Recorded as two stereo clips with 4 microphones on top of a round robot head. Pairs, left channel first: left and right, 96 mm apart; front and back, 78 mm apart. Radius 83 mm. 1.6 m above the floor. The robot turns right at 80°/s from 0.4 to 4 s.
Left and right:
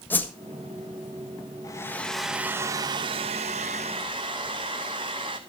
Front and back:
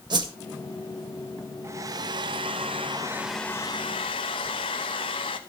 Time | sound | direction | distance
0.1 | a whoosh | 160° left | 1.5 m
1.6 | a hair dryer | 135° left | 1.1 m